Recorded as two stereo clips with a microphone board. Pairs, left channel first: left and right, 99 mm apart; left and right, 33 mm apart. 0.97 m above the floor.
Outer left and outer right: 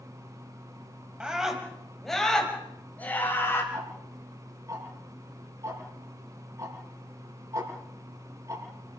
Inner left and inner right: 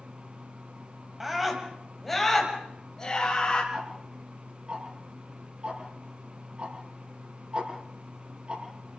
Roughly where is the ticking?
Right.